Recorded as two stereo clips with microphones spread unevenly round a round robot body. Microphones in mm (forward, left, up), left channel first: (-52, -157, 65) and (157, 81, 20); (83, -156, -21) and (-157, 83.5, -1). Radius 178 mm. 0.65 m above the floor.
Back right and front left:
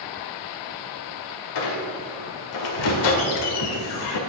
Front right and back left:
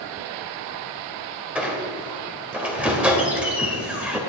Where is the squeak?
140° right, 2.0 m.